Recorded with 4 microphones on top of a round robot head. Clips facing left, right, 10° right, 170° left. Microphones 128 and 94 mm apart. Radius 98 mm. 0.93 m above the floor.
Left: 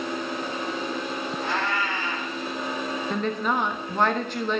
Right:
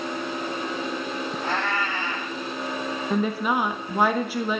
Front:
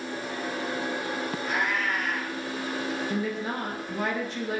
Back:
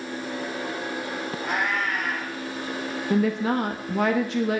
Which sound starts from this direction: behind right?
A cat meowing, at 1.4 s.